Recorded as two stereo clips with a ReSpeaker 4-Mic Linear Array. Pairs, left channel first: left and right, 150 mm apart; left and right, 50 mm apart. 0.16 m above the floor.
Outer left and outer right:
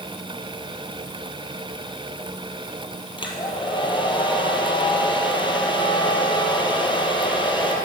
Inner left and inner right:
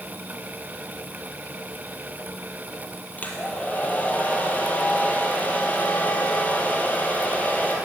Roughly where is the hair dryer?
Left.